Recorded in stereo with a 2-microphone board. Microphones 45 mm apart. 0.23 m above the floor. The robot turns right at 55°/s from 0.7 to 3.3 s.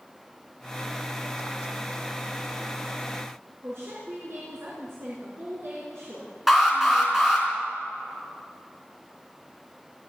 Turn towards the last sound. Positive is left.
turn(degrees=-5)  # may be behind; listen again after turning